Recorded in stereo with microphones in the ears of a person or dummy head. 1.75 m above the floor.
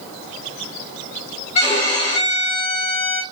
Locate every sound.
1.6 s a violin: 35° left (ahead or behind), 0.7 m